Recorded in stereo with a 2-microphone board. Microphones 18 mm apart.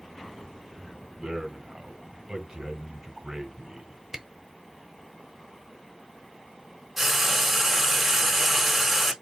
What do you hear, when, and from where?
1.2 s a man speaking: 40° right (ahead or behind), 2.0 m
4.1 s a camera shutter: 30° right (ahead or behind), 1.1 m
7.0 s frying: 5° right (ahead or behind), 1.8 m